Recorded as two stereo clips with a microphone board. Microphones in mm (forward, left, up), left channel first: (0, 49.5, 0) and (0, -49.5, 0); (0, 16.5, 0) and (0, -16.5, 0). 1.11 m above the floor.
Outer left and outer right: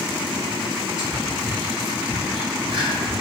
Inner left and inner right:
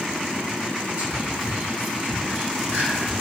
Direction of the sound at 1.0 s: 55° right (ahead or behind).